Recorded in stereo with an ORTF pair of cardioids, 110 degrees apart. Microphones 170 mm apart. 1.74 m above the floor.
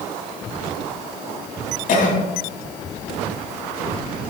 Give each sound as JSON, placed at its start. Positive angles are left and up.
{"t": 1.9, "sound": "a cough", "azimuth_deg": 55, "distance_m": 3.5}